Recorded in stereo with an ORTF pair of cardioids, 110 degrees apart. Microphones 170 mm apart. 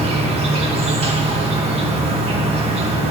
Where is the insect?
35° right, 1.3 m.